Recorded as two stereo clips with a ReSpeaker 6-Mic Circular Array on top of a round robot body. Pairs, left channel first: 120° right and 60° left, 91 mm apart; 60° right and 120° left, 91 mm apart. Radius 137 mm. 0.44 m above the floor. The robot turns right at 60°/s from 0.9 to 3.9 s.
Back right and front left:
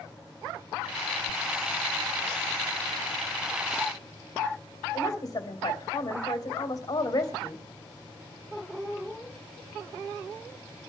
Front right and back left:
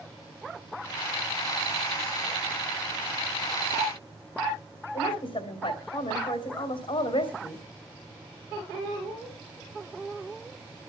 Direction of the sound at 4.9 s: 75° right.